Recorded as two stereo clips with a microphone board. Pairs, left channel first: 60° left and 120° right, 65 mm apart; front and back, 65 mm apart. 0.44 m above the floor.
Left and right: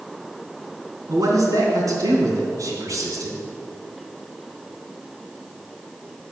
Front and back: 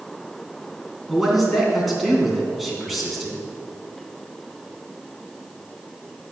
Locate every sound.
1.1 s a man speaking: 90° right, 3.5 m